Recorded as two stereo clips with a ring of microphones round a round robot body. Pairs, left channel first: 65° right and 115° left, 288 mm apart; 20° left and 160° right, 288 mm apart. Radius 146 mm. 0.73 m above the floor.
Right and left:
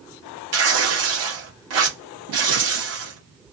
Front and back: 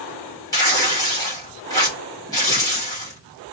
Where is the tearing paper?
100° left, 1.7 m.